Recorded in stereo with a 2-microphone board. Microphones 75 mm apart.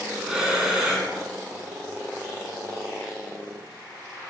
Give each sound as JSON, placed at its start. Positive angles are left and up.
{"t": 0.2, "sound": "breathing", "side_deg": -10, "distance_m": 0.7}